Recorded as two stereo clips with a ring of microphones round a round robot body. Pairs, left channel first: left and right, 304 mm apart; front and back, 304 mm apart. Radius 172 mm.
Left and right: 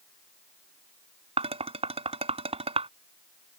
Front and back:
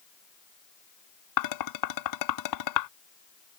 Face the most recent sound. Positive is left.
turn(degrees=-20)